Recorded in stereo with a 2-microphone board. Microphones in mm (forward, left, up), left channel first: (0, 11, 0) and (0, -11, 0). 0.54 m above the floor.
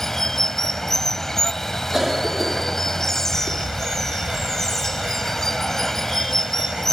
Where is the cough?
20° right (ahead or behind).